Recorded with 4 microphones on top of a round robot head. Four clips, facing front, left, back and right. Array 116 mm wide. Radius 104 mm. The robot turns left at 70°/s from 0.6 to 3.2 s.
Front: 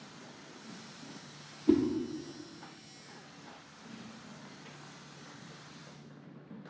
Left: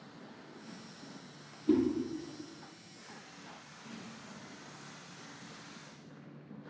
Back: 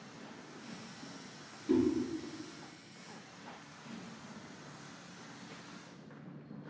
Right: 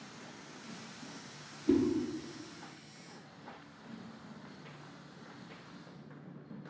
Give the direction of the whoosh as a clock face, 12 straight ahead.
12 o'clock.